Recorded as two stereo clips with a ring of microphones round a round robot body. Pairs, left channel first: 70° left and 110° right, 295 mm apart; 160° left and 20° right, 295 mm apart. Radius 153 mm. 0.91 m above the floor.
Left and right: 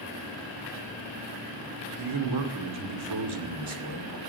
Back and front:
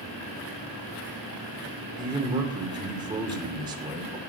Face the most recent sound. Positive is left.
turn(degrees=-100)